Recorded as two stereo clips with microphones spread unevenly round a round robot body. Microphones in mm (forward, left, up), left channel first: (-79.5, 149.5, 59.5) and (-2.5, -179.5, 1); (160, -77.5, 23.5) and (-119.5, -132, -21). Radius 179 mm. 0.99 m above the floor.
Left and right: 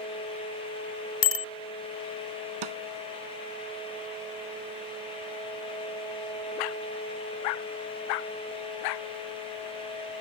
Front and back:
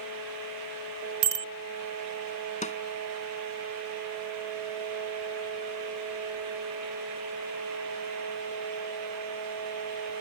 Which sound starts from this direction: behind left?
A bicycle bell, at 1.2 s.